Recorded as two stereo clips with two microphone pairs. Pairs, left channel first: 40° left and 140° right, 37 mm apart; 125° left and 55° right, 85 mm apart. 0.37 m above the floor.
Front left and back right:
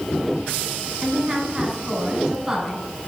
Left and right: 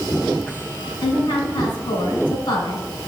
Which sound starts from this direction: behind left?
A woman speaking, at 1.0 s.